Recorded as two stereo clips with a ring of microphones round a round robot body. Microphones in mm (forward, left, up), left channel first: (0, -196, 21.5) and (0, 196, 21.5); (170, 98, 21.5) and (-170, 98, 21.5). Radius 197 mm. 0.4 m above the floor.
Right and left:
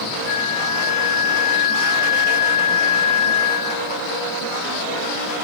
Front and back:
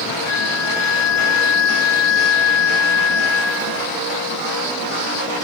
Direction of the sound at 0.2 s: 10° right.